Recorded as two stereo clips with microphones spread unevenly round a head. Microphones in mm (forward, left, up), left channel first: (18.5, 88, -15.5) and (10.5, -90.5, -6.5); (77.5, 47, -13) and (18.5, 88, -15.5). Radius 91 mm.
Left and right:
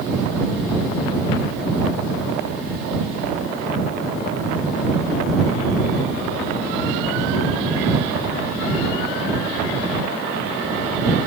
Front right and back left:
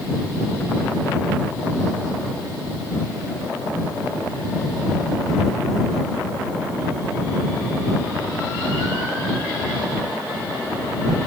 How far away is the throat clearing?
I don't hear throat clearing.